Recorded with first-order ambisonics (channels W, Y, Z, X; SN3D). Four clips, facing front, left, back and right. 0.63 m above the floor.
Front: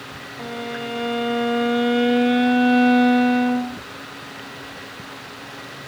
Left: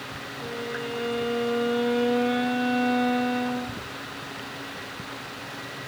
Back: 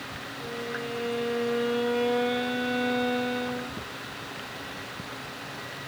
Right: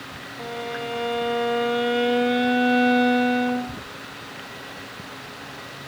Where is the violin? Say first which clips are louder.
Right 3 dB, front 5 dB; 35° right, 0.8 m.